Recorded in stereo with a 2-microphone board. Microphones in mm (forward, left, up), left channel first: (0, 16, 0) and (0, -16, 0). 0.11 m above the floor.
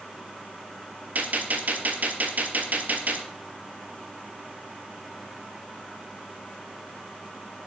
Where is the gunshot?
55° right (ahead or behind), 0.7 m.